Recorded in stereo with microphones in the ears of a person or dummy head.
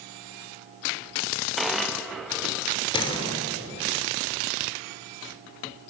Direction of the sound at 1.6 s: Centre (ahead or behind).